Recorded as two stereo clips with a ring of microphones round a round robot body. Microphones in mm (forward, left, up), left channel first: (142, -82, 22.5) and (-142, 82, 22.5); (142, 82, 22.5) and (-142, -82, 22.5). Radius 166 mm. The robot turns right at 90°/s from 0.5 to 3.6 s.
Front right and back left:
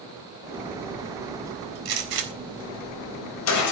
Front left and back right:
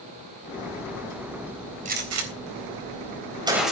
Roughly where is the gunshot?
Behind left.